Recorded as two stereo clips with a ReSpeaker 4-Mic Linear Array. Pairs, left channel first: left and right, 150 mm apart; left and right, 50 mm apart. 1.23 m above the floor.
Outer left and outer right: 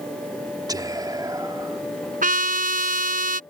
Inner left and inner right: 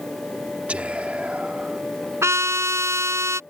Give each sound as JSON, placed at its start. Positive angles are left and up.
{"t": 0.7, "sound": "whispering", "side_deg": -25}
{"t": 2.2, "sound": "a trumpet", "side_deg": -70}